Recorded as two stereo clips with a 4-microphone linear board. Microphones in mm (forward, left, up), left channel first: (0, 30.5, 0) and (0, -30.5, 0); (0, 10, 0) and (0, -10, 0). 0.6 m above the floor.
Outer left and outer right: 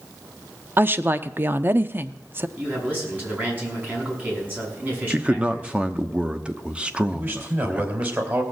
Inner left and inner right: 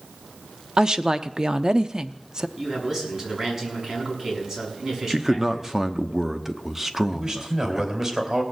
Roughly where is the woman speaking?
Right.